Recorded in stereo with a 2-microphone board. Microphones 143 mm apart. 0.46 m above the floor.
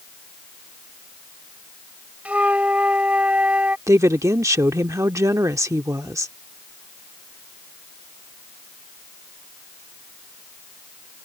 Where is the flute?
10° right (ahead or behind).